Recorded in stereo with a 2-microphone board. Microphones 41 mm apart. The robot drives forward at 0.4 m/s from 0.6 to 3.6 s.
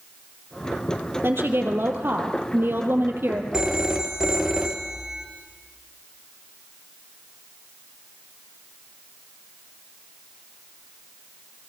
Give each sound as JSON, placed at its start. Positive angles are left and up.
{"t": 1.2, "sound": "a woman speaking", "side_deg": -65, "distance_m": 3.0}
{"t": 3.5, "sound": "a phone ringing", "side_deg": -15, "distance_m": 1.3}